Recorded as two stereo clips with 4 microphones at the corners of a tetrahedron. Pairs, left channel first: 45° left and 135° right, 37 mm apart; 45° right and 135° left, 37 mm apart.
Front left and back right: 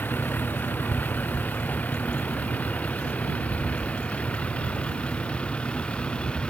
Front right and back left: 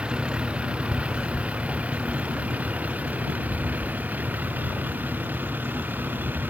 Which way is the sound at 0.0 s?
75° left.